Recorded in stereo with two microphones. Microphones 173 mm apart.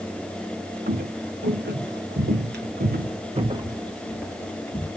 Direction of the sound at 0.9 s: 70° right (ahead or behind).